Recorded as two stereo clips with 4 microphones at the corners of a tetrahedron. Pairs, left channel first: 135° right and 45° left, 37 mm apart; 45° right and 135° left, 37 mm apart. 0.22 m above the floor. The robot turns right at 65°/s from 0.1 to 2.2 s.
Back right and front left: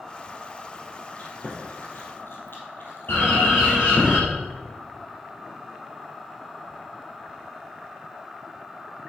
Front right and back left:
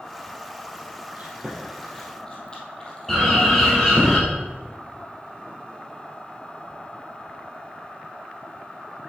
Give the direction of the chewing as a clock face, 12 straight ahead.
6 o'clock.